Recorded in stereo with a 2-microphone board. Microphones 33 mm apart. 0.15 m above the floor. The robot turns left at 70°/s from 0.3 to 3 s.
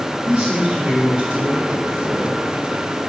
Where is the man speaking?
60° right, 2.0 m; by 2.4 s 155° left, 2.0 m.